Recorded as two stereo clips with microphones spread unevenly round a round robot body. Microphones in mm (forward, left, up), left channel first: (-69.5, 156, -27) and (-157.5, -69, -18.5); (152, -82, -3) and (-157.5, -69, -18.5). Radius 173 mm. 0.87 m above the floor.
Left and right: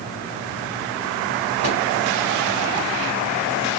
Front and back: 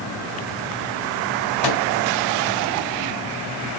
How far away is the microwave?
About 3 m.